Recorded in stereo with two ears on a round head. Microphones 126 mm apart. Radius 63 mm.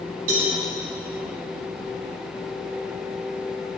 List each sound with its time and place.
0.3 s a cowbell: 70° right (ahead or behind), 5.5 m